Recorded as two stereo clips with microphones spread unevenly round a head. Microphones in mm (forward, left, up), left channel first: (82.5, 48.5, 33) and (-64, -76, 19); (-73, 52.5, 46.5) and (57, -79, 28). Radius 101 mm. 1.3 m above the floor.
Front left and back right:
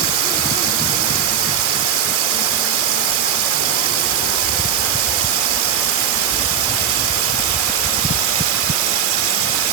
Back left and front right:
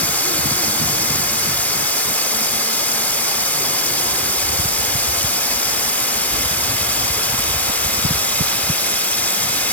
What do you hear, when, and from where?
0.0 s running water: 145° right